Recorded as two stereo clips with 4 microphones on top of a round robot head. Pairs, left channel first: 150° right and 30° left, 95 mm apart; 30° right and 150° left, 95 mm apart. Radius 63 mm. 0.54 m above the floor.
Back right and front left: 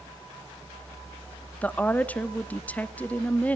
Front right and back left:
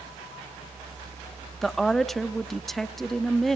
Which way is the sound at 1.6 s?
115° right.